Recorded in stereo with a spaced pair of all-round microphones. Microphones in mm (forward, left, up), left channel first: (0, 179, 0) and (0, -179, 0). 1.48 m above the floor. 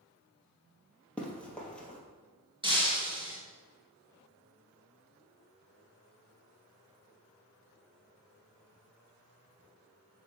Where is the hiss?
I don't hear a hiss.